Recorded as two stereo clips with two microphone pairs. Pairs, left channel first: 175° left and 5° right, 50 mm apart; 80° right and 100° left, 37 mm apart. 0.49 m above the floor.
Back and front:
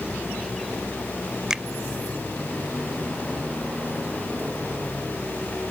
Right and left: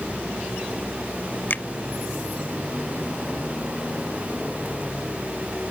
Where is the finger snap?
80° right.